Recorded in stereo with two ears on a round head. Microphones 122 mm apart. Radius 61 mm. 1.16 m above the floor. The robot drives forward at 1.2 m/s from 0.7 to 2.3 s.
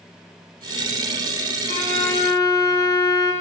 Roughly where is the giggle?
No giggle in this recording.